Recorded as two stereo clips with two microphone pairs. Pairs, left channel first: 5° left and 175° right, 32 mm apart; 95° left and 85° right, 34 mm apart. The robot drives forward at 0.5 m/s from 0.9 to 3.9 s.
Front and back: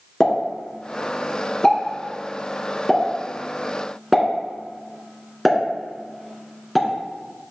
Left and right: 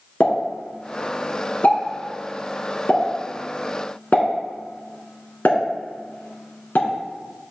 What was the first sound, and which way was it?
A pop, 60° left.